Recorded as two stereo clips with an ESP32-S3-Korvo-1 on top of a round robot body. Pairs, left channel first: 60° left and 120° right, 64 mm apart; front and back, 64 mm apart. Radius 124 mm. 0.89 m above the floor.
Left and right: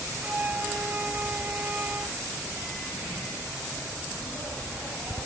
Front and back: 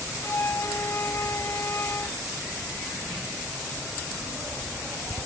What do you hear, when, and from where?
0.2 s a flute: 50° right